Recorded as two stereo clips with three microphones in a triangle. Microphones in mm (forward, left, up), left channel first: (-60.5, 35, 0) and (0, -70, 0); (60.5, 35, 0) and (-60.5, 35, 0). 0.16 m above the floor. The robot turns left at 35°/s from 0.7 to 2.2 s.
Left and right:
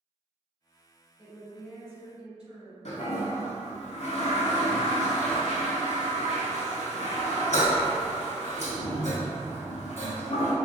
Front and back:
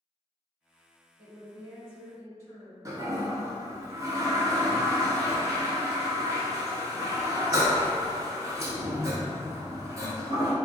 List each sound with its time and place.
1.2 s a woman speaking: 105° right, 1.8 m; by 2.8 s 140° right, 1.8 m
2.9 s a toilet flushing: 120° left, 0.5 m